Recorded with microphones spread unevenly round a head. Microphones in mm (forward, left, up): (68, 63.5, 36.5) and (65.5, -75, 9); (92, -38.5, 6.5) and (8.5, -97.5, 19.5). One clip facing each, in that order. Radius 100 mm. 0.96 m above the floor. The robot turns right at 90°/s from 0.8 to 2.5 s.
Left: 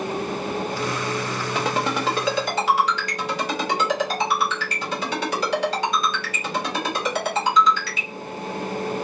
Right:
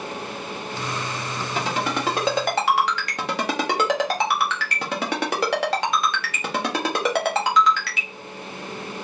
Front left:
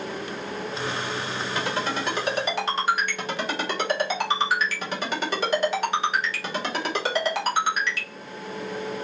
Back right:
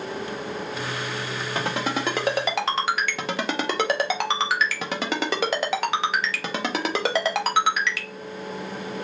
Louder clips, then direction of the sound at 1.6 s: Left 1 dB, back right 2 dB; 135° left.